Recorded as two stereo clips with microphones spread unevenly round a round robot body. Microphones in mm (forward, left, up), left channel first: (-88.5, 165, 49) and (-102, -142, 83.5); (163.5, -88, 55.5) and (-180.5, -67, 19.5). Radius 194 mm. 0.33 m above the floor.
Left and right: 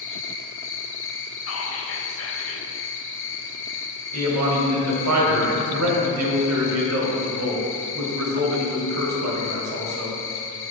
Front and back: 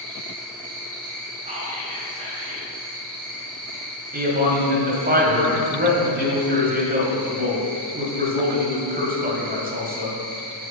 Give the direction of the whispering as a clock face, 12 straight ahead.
8 o'clock.